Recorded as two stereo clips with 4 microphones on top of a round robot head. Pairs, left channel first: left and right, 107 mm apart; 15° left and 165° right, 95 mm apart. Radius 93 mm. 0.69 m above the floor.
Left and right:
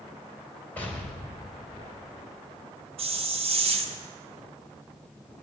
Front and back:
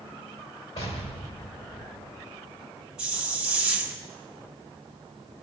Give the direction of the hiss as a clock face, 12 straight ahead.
3 o'clock.